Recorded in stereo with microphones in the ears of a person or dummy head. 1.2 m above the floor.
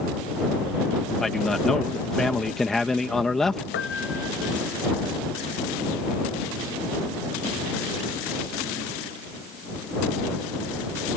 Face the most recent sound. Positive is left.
turn(degrees=60)  # may be behind; listen again after turning